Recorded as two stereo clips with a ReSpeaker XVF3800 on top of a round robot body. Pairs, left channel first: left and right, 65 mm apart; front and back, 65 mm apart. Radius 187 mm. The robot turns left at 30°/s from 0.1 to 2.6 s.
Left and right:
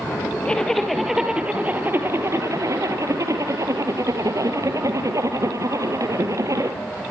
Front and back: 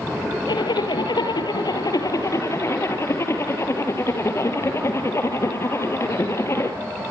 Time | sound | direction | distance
0.5 | a zipper | 15° left | 3.5 m